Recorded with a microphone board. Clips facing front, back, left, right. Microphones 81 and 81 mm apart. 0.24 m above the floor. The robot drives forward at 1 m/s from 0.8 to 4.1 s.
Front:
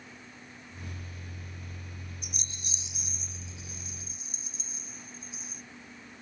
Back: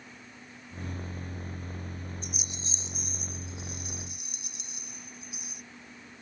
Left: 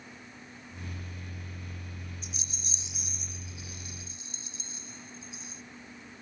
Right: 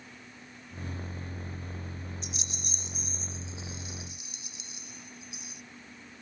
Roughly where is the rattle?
Right.